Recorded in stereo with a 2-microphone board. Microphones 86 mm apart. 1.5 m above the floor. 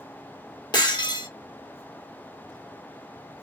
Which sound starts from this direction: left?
Breaking glass, at 0.7 s.